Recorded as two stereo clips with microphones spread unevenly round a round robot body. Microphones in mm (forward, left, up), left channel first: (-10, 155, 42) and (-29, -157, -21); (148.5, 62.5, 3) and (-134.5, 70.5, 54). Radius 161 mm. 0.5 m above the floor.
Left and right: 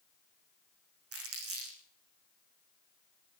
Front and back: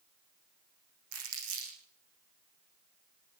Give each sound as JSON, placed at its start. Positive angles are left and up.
{"t": 1.1, "sound": "crumpling", "azimuth_deg": -140, "distance_m": 10.0}